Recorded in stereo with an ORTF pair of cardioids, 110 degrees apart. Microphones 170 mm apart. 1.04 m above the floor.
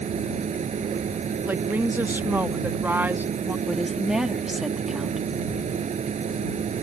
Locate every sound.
0.0 s a machine running: 45° right
1.4 s a woman speaking: 10° right
3.7 s a woman speaking: 5° right